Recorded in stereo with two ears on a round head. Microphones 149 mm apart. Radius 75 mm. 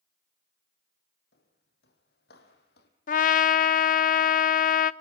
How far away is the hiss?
No hiss in this recording.